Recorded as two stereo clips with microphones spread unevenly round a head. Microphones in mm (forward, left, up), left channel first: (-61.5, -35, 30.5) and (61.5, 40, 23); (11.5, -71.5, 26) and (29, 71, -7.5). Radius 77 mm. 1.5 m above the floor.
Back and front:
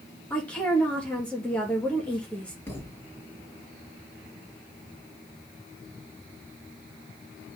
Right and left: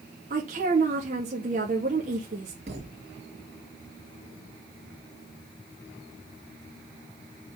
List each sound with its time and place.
0.3 s a woman speaking: 130° left, 2 m
2.7 s a thud: 140° left, 3 m